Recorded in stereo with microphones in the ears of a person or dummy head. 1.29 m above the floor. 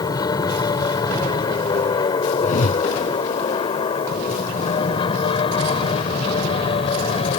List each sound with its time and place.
0.0 s an aircraft: 20° left (ahead or behind); by 7.4 s 30° left (ahead or behind)
2.4 s a whoosh: 50° left (ahead or behind)